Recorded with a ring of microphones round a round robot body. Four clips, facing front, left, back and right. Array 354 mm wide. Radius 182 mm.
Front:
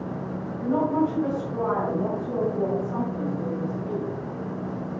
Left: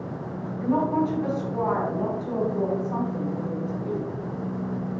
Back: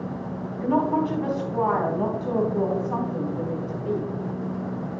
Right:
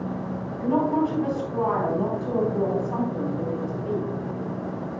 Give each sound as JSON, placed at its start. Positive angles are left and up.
{"t": 0.6, "sound": "a woman speaking", "azimuth_deg": -175, "distance_m": 4.0}